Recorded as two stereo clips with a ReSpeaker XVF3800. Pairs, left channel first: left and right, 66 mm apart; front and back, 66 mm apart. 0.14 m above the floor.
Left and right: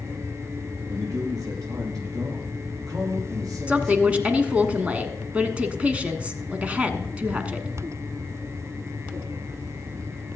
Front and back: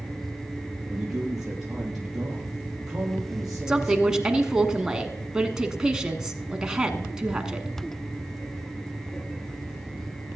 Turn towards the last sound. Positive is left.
turn(degrees=-120)